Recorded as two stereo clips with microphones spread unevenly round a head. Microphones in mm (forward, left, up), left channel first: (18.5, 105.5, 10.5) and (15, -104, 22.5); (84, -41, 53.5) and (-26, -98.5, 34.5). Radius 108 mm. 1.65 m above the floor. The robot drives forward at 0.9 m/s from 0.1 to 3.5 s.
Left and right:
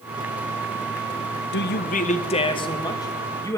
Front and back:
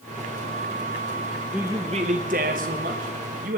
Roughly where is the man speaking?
Behind left.